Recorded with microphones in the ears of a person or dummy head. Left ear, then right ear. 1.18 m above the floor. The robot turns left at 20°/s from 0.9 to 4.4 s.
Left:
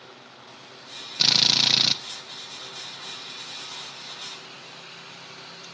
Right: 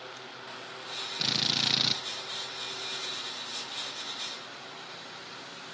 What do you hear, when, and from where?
1.2 s a drill: 25° left (ahead or behind), 1.1 m; by 2.0 s 10° left (ahead or behind), 1.1 m